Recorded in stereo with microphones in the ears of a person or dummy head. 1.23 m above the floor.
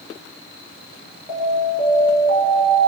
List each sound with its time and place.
1.3 s an alarm: 25° right (ahead or behind), 7 m